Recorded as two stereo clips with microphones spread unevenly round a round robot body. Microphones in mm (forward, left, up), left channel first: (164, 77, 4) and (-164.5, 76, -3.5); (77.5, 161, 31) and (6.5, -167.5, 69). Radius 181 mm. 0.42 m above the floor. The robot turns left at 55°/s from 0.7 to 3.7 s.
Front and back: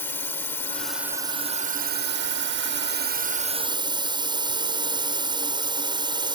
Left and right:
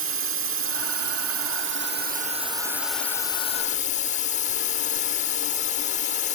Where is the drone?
80° right; by 6.4 s 115° left.